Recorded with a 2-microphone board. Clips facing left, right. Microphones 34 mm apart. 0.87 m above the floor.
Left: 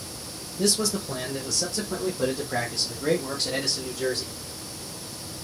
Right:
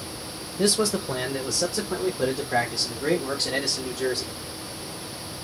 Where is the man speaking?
35° right (ahead or behind), 0.7 m; by 4.3 s 5° right (ahead or behind), 2 m.